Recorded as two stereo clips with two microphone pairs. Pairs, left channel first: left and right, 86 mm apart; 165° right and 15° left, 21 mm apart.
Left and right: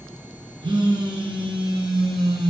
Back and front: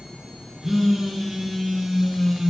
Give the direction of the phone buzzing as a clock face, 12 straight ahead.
2 o'clock.